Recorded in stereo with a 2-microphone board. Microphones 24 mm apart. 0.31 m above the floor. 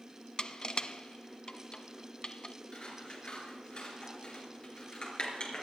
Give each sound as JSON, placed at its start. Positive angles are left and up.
{"t": 0.4, "sound": "crushing", "side_deg": 35, "distance_m": 0.5}
{"t": 2.7, "sound": "scissors", "side_deg": 40, "distance_m": 4.0}